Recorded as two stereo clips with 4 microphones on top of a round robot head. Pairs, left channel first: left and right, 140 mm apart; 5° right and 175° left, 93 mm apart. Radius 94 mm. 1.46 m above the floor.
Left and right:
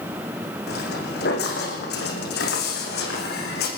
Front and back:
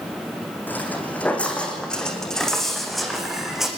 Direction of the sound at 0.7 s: 65° left.